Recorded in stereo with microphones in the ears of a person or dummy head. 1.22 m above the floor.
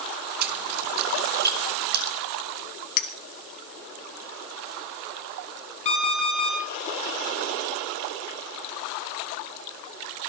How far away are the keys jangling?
About 1.1 m.